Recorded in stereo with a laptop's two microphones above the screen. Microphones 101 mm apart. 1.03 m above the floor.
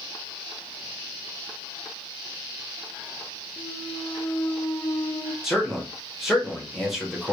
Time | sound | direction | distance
3.6 | a clunk | 40° left (ahead or behind) | 0.6 m
5.4 | a man speaking | 5° right (ahead or behind) | 1.1 m